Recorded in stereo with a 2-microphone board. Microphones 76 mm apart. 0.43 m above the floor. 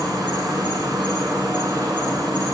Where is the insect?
70° right (ahead or behind), 1.3 m.